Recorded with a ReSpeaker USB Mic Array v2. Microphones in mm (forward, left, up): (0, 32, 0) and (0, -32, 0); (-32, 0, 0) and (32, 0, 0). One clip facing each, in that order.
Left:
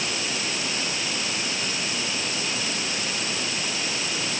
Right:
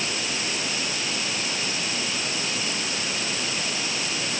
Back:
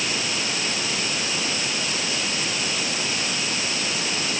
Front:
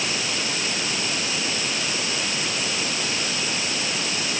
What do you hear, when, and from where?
Only background noise.